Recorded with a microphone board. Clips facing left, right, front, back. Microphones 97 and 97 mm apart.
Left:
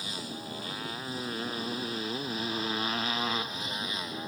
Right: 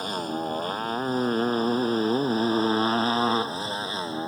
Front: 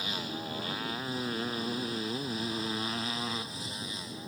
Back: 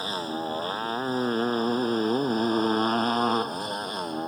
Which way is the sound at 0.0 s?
130° right.